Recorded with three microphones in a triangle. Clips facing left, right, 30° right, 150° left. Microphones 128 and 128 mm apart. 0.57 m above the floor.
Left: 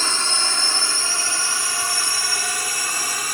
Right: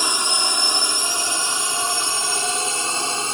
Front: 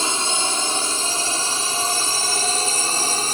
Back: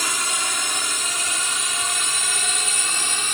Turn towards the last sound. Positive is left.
turn(degrees=-45)